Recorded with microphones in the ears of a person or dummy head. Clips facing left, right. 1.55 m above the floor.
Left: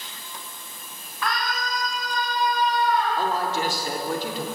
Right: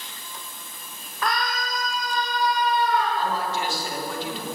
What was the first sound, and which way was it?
A scream, 40° right (ahead or behind).